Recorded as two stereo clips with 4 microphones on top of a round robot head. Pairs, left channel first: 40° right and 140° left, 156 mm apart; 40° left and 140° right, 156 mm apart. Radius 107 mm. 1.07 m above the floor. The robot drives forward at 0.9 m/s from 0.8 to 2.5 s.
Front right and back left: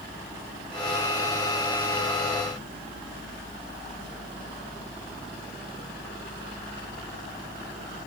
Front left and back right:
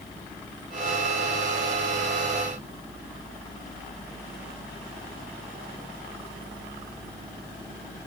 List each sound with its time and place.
Only background noise.